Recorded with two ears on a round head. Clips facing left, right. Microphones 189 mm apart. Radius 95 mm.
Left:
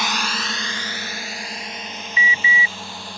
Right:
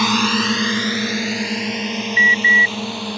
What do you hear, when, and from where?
0.0 s a drone: 70° right (ahead or behind); by 3.2 s 55° right (ahead or behind)
2.2 s an alarm: 55° left (ahead or behind)